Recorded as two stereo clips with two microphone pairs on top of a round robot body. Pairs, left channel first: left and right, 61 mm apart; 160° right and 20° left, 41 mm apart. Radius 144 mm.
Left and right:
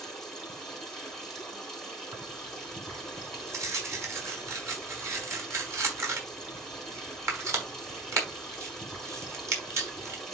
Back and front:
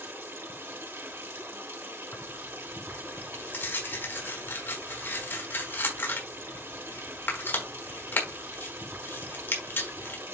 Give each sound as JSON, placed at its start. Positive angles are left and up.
{"t": 0.0, "sound": "running water", "azimuth_deg": 10, "distance_m": 4.5}
{"t": 2.1, "sound": "tearing paper", "azimuth_deg": -120, "distance_m": 4.5}